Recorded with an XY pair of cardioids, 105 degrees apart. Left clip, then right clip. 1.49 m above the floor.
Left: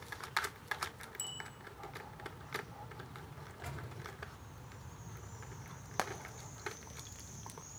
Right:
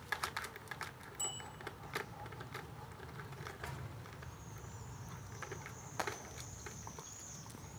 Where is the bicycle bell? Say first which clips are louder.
Right 1 dB; 50° left, 6.5 m.